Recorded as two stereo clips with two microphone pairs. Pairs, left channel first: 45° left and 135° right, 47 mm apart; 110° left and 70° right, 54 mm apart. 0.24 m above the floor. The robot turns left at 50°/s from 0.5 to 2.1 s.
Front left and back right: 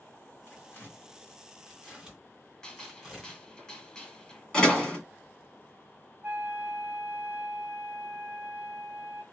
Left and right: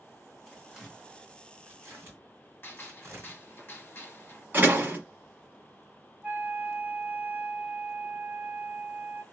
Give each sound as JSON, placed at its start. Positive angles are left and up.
{"t": 0.5, "sound": "tearing paper", "azimuth_deg": 30, "distance_m": 2.5}
{"t": 2.6, "sound": "a gunshot", "azimuth_deg": 115, "distance_m": 1.1}
{"t": 4.5, "sound": "a door slam", "azimuth_deg": -25, "distance_m": 1.4}
{"t": 6.2, "sound": "a flute", "azimuth_deg": -115, "distance_m": 0.8}